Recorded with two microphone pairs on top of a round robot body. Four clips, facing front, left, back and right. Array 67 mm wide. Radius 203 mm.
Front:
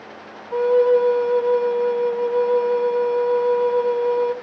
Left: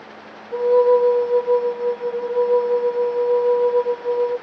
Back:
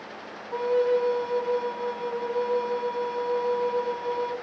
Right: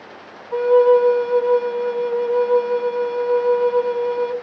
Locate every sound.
0.5 s a flute: 55° right, 2 m